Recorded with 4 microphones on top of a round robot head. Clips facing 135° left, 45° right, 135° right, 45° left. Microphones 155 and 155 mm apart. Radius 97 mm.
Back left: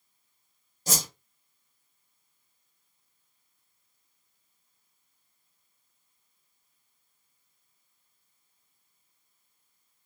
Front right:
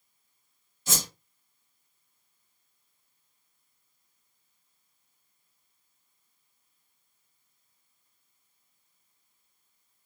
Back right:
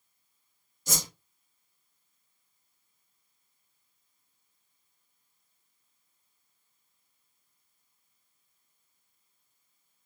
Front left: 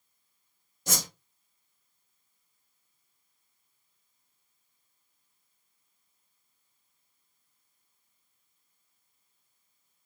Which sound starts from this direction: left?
A whoosh, at 0.9 s.